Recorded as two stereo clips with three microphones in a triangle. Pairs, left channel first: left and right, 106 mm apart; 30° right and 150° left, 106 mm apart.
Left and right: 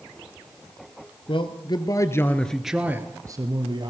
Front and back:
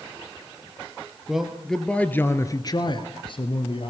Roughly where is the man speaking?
Ahead left.